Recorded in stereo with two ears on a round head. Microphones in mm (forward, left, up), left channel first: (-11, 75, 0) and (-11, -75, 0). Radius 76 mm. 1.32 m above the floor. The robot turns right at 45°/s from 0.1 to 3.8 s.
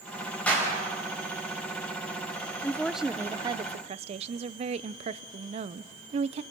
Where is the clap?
5° left (ahead or behind), 7 m; by 0.7 s 20° left (ahead or behind), 7 m.